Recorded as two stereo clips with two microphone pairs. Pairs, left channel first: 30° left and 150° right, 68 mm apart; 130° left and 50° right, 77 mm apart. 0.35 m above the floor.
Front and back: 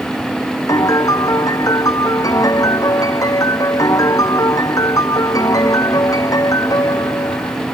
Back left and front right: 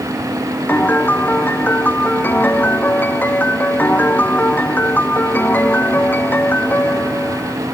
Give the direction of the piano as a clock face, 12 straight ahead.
10 o'clock.